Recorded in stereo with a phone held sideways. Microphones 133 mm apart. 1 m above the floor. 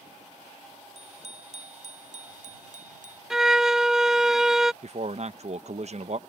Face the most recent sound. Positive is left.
turn(degrees=-55)  # may be behind; listen again after turning